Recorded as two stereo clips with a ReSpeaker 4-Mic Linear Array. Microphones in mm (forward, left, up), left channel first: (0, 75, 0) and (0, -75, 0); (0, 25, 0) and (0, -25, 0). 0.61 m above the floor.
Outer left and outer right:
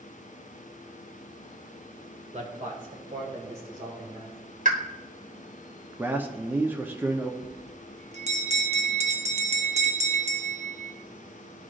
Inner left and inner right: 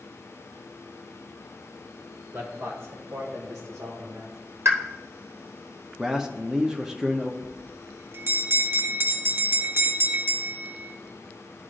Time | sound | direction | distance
2.3 | a man speaking | 45° right (ahead or behind) | 1.6 m
4.7 | a pop | 60° right (ahead or behind) | 1.2 m
6.0 | a man speaking | 10° right (ahead or behind) | 0.6 m
7.4 | a bell | 50° right (ahead or behind) | 0.8 m